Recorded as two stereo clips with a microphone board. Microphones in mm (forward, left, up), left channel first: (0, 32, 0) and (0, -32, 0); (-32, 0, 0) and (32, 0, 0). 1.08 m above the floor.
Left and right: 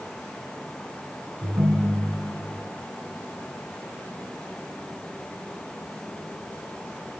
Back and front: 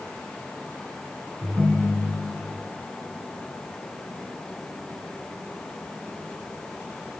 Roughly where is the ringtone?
Ahead right.